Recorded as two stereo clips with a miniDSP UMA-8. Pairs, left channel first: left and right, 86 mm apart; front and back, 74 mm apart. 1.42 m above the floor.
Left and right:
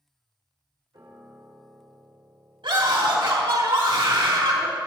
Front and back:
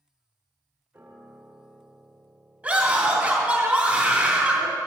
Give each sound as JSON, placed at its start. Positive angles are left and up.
{"t": 0.9, "sound": "a piano", "azimuth_deg": -120, "distance_m": 2.5}
{"t": 2.6, "sound": "a scream", "azimuth_deg": -105, "distance_m": 2.5}